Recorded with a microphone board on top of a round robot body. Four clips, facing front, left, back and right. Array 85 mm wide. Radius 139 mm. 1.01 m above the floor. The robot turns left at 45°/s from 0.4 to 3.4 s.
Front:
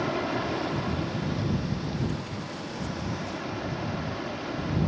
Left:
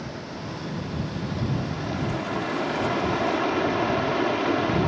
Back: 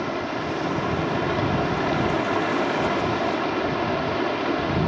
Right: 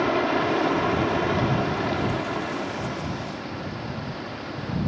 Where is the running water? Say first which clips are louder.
Right 13 dB, back 2 dB; 90° right; by 4.9 s 135° left.